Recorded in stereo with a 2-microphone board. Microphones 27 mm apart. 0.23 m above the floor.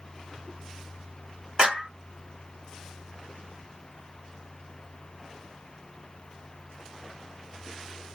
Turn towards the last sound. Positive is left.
turn(degrees=-40)  # may be behind; listen again after turning